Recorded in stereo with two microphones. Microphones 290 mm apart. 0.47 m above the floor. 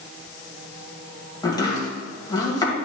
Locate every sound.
1.4 s chopping: 15° left (ahead or behind), 2 m